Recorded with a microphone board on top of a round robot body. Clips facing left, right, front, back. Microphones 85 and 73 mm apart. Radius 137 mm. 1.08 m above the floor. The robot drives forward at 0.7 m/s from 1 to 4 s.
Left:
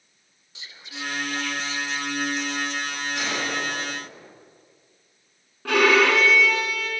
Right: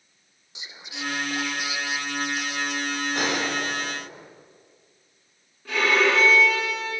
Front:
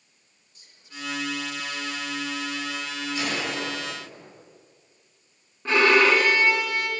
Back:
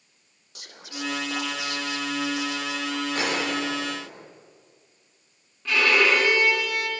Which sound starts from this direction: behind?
Whispering, at 0.6 s.